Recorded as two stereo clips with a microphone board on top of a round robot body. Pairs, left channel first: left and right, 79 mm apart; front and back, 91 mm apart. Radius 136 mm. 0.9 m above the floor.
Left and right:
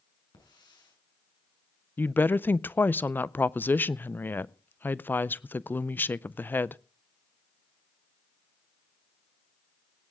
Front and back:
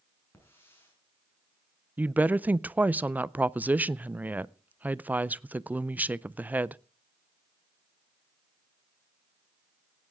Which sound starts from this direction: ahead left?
A hiss, at 0.3 s.